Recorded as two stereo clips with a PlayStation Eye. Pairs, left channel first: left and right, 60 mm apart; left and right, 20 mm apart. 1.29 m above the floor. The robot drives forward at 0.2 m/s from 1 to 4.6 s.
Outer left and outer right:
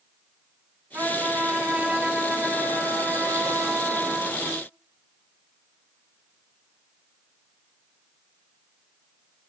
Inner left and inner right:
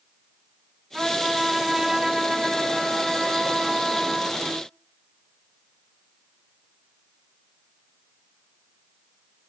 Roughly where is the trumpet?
Right.